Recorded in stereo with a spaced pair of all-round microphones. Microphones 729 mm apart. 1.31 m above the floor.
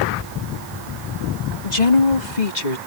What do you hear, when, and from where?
1.6 s a woman speaking: 65° left (ahead or behind); by 2.8 s 75° left (ahead or behind)